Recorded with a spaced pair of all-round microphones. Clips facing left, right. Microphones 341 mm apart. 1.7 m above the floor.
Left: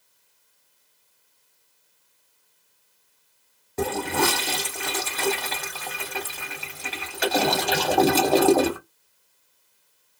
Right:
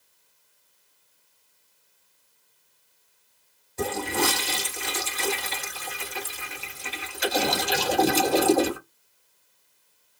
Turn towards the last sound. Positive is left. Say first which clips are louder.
# left 2 dB
turn(degrees=70)  # may be behind; listen again after turning